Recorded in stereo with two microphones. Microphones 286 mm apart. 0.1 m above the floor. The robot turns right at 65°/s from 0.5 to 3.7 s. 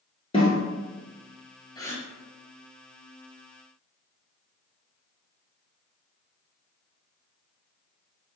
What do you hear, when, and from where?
0.3 s a snare drum: 20° left (ahead or behind), 1.6 m; by 0.6 s 15° left (ahead or behind), 1.6 m
1.8 s a gasp: 15° left (ahead or behind), 0.7 m; by 2.1 s centre (ahead or behind), 0.7 m